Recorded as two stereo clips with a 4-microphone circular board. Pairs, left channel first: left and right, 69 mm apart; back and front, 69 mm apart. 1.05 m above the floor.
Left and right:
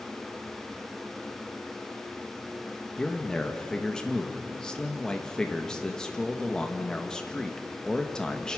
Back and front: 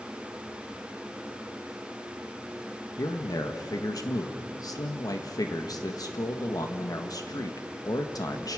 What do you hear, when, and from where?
3.0 s a man speaking: 170° left, 1.5 m